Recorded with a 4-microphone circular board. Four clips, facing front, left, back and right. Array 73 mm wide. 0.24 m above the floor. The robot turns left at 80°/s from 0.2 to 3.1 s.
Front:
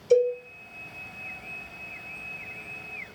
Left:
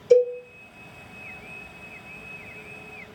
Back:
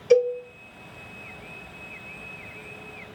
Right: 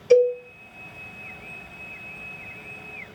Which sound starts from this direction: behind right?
A cowbell, at 0.1 s.